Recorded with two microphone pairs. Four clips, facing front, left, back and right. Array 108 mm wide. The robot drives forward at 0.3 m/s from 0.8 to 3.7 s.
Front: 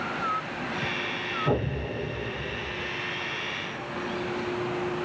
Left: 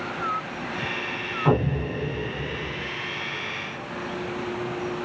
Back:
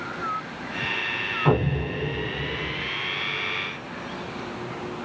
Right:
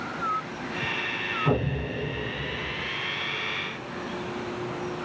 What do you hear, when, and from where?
1.4 s an explosion: 135° left, 0.8 m; by 2.9 s 150° left, 1.1 m